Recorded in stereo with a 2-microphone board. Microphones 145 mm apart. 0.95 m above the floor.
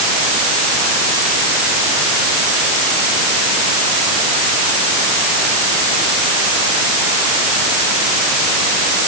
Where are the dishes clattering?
I don't hear dishes clattering.